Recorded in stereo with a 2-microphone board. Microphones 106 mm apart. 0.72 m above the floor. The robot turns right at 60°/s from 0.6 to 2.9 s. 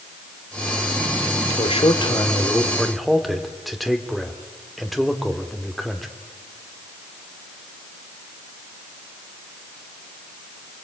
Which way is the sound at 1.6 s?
100° left.